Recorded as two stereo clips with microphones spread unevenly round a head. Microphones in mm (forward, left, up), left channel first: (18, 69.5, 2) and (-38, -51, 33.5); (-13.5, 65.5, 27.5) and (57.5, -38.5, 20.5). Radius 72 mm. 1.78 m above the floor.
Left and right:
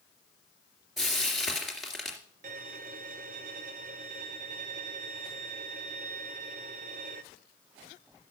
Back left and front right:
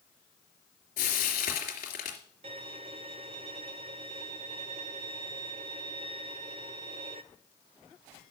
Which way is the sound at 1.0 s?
160° left.